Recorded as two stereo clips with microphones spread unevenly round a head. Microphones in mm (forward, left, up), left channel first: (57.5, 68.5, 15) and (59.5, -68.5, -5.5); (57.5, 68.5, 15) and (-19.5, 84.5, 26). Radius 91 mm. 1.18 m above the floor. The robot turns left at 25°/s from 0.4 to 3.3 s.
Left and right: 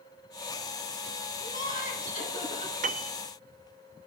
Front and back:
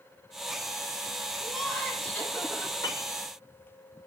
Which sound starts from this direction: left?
Laughter, at 1.4 s.